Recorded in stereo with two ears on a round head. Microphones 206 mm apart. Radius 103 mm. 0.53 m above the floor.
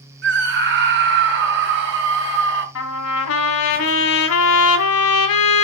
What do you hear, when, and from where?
0.2 s a scream: 50° right (ahead or behind), 6.5 m
2.8 s a trumpet: 60° left (ahead or behind), 2.5 m